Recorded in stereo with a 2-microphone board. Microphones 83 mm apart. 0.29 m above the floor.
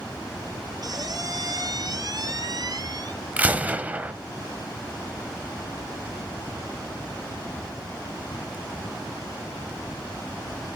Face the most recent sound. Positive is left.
turn(degrees=-20)  # may be behind; listen again after turning